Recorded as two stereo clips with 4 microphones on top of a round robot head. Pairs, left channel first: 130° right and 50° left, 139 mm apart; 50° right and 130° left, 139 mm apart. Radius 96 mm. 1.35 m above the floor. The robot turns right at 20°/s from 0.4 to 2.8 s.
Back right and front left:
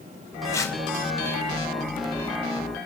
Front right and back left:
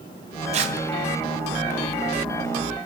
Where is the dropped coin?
No dropped coin in this recording.